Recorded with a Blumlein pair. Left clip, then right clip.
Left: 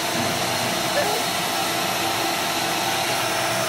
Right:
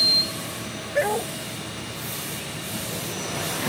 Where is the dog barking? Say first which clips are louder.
Right 2 dB; 5° right.